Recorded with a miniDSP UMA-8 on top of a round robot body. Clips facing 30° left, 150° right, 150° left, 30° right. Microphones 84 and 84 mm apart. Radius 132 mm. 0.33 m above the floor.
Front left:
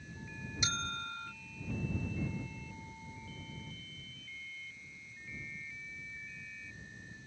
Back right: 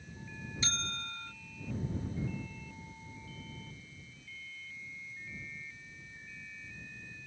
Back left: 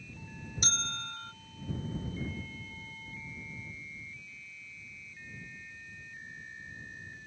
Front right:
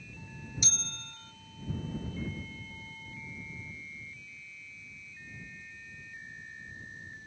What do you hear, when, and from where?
0.6 s a bell: 105° left